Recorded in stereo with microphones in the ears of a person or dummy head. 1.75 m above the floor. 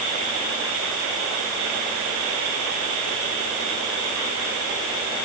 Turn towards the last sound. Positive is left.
No sound to turn to.